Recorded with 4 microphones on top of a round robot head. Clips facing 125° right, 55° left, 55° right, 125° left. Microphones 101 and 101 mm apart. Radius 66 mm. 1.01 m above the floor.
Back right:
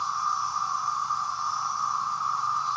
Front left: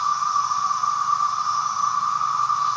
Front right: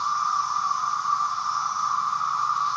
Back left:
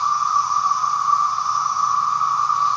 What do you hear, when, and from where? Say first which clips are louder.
0.0 s an insect: front left 6 dB, back left 6 dB; 85° left, 1.5 m